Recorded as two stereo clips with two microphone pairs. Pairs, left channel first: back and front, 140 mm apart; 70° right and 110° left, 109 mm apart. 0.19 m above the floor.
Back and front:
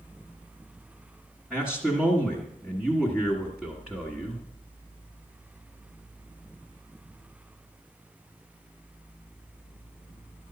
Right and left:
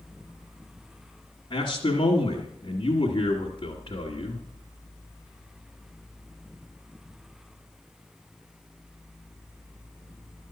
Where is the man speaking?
90° right, 1.6 m.